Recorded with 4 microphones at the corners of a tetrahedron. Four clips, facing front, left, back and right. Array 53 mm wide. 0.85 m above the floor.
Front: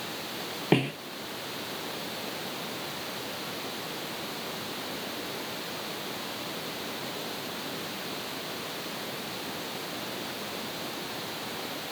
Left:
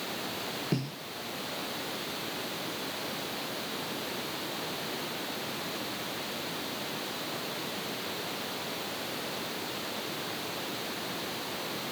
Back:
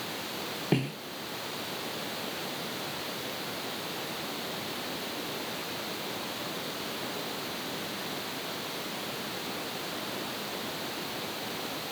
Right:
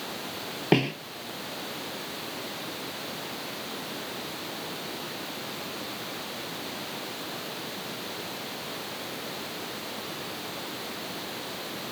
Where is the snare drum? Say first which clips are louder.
Right 13 dB, front 5 dB; 60° right.